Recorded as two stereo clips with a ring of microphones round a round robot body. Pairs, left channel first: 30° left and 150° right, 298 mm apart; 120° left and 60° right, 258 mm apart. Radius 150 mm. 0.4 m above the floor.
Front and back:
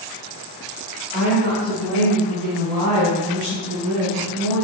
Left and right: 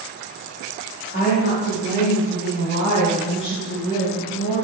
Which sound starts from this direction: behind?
A woman speaking, at 1.1 s.